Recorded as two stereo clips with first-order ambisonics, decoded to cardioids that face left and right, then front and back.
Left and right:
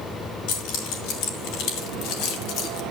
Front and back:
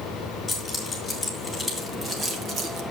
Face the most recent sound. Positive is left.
turn(degrees=130)